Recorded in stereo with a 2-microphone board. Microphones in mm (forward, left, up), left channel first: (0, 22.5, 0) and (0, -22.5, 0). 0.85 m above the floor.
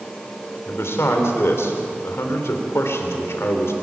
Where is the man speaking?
65° left (ahead or behind), 3 m.